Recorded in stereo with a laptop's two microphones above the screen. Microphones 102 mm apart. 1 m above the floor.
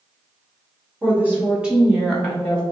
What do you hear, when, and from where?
1.0 s a woman speaking: 20° right (ahead or behind), 1.1 m; by 2.6 s 20° left (ahead or behind), 0.7 m